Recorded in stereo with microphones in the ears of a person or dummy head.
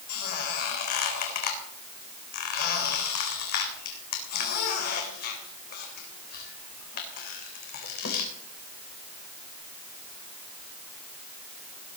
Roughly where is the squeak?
Left.